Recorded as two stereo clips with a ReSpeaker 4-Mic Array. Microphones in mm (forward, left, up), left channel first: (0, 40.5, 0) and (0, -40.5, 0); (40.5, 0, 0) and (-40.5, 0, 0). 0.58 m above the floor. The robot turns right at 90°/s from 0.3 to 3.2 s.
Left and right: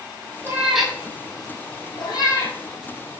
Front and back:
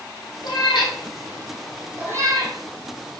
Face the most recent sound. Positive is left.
turn(degrees=-140)